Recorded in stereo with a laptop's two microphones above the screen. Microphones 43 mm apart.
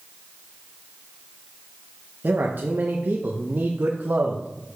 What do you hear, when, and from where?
2.2 s a man speaking: 50° right (ahead or behind), 0.8 m